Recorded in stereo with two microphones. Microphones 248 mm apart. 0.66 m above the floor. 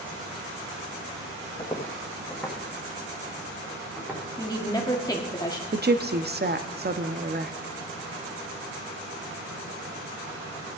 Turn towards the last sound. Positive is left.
turn(degrees=-40)  # may be behind; listen again after turning